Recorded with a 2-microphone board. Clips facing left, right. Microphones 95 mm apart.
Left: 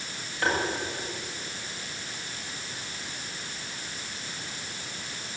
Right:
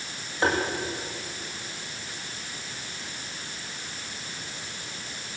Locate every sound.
0.4 s tapping: 25° right (ahead or behind), 9 m